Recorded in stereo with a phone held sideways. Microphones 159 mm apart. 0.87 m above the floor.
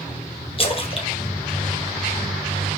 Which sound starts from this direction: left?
A splash, at 0.6 s.